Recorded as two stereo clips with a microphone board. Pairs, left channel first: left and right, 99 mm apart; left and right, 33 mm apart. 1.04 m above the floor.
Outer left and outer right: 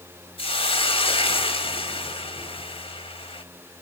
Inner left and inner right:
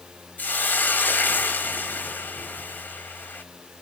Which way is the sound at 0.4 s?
70° left (ahead or behind).